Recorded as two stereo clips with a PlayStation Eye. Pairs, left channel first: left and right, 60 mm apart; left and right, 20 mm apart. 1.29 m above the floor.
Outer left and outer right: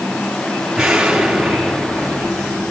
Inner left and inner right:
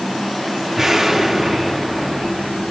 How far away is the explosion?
About 7.5 m.